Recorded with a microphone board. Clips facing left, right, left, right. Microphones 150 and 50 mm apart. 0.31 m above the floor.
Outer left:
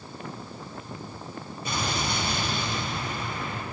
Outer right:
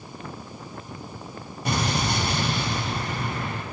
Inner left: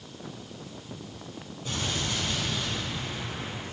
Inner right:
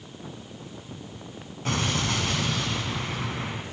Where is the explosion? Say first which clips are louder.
Outer right 5 dB, inner right 5 dB; 65° right (ahead or behind), 1.1 m.